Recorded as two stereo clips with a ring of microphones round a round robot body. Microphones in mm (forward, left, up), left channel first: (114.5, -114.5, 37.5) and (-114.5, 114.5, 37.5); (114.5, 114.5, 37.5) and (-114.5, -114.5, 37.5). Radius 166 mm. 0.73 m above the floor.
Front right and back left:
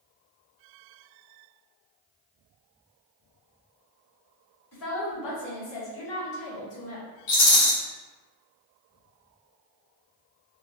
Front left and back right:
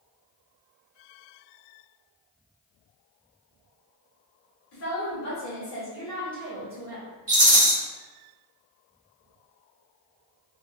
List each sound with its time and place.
4.7 s a woman speaking: 5° right, 2.0 m; by 7.1 s 65° right, 1.5 m
7.3 s a rattle: 65° right, 1.4 m